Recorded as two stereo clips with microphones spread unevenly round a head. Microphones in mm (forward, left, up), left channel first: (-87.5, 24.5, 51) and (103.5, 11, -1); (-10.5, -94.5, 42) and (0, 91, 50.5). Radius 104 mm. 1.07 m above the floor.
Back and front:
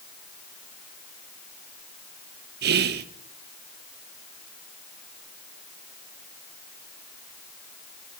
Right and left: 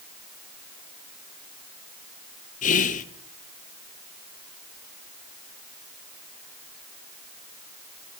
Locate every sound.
2.6 s whispering: 40° right, 0.6 m